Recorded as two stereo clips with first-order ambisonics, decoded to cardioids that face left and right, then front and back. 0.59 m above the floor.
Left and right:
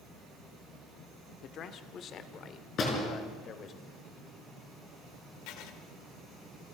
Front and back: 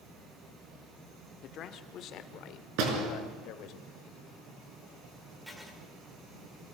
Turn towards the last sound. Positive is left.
turn(degrees=90)